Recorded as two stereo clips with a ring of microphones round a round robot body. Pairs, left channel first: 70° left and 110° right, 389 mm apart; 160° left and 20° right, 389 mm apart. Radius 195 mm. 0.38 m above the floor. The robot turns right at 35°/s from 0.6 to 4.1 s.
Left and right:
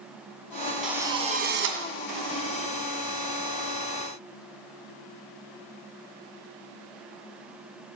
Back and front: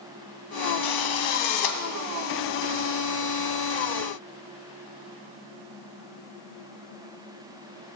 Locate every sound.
0.8 s a drill: 160° left, 2 m; by 1.8 s 170° right, 2 m